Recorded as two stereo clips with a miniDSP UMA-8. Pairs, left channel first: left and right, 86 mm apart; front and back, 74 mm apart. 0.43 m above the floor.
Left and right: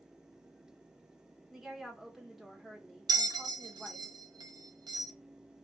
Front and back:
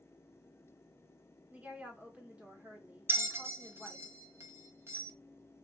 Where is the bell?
125° right, 0.7 m.